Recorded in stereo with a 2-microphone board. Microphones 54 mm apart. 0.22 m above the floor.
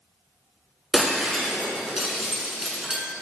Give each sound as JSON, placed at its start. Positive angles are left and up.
{"t": 0.9, "sound": "breaking glass", "side_deg": -5, "distance_m": 1.4}